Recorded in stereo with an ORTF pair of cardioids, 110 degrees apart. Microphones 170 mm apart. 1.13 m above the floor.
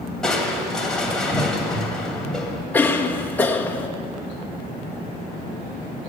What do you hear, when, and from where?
0.2 s crushing: 5° left, 2.5 m
2.7 s a cough: 10° left, 1.4 m